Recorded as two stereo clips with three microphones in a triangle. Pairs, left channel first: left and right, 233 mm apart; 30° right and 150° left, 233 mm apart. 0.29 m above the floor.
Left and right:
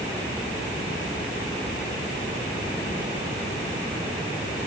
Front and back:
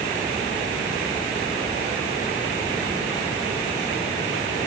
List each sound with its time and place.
Only background noise.